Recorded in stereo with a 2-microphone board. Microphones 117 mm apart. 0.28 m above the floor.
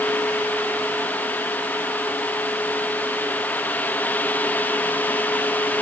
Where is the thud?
No thud in this recording.